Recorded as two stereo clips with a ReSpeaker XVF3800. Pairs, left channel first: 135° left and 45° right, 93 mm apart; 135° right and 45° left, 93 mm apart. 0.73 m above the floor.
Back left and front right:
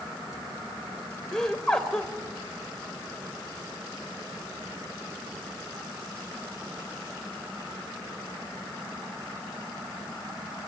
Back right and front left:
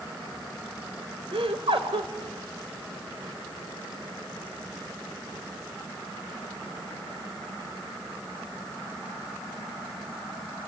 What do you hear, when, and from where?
1.3 s laughter: 50° left, 2.5 m